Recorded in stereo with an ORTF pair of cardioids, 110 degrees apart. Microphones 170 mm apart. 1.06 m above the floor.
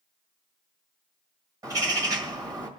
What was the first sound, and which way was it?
A bird, 25° right.